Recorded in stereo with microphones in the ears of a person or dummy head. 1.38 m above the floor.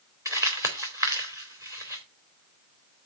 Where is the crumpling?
15° right (ahead or behind), 2.5 m.